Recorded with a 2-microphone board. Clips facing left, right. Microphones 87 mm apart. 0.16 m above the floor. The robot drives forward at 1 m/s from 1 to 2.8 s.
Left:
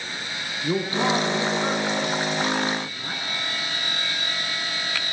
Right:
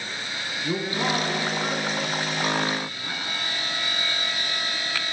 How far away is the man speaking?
About 1.3 m.